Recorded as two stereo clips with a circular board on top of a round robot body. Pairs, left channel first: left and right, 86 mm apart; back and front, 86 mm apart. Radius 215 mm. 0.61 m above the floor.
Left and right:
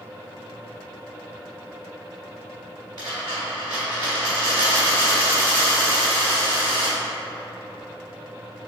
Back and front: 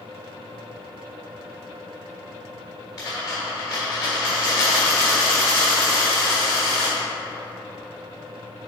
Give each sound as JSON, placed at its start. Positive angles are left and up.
{"t": 3.0, "sound": "a dropped coin", "azimuth_deg": -130, "distance_m": 0.7}